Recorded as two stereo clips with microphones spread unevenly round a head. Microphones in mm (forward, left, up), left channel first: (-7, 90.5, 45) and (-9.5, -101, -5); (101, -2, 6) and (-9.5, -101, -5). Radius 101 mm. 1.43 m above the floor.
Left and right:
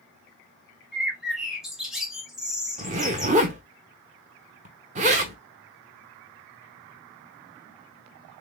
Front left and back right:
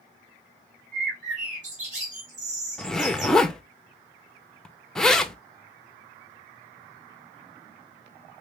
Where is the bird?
175° left, 1.0 m.